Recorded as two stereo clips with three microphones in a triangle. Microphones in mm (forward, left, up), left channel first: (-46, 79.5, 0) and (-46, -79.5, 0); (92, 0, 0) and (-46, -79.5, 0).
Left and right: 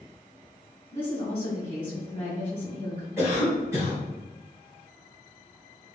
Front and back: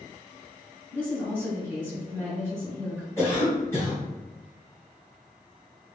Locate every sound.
0.9 s a woman speaking: 155° left, 1.6 m
3.2 s a cough: 30° right, 1.9 m